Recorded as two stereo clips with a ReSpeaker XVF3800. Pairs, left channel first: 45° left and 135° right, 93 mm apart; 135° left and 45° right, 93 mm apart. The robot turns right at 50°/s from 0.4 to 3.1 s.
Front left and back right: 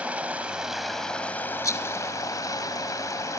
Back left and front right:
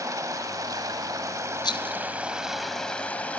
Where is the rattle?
95° left, 0.8 m; by 2.0 s 115° left, 0.8 m.